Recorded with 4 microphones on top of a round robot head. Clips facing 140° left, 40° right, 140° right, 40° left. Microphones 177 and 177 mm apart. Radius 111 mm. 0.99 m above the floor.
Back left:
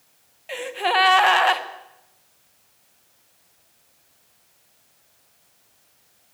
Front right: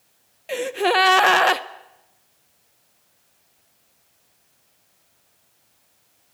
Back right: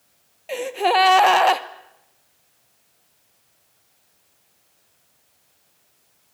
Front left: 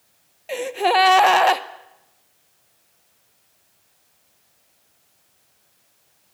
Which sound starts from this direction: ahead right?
A gasp, at 0.5 s.